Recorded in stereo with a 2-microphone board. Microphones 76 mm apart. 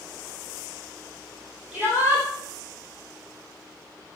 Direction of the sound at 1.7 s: 10° right (ahead or behind).